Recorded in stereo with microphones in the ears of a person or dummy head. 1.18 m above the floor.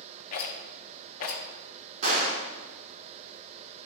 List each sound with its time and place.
0.3 s a rattle: 50° left (ahead or behind), 1.0 m
2.0 s a gunshot: 40° right (ahead or behind), 2.5 m